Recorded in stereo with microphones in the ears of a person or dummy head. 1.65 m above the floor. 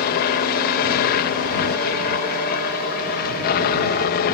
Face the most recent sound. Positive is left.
turn(degrees=55)  # may be behind; listen again after turning